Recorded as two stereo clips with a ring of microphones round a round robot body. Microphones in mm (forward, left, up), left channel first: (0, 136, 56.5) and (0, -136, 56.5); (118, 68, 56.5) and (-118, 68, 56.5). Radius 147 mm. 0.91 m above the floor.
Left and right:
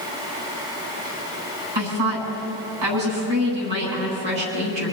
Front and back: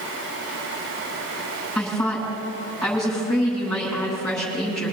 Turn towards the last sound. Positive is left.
turn(degrees=-90)